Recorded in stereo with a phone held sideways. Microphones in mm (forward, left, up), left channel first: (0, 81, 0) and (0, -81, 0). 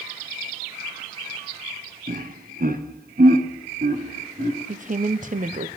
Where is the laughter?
60° right (ahead or behind), 0.9 m; by 4.6 s 70° right (ahead or behind), 2.5 m.